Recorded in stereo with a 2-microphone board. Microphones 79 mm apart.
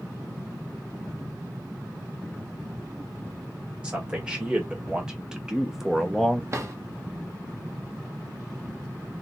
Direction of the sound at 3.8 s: 15° right (ahead or behind).